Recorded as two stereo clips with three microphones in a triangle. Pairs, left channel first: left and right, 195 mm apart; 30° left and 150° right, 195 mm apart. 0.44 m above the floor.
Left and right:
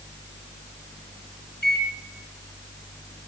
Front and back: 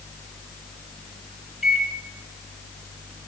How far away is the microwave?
About 4 m.